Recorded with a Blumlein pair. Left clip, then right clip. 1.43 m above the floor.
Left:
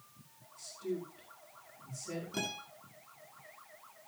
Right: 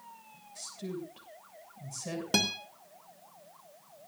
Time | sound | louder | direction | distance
0.6 | a woman speaking | left 1 dB | 50° right | 7 m
2.3 | a guitar | right 11 dB | 50° right | 2.5 m